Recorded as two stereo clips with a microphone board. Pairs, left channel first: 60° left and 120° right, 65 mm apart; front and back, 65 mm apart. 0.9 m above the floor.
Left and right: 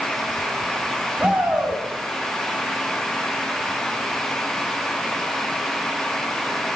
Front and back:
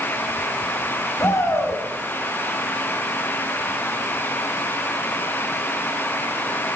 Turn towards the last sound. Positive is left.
turn(degrees=-50)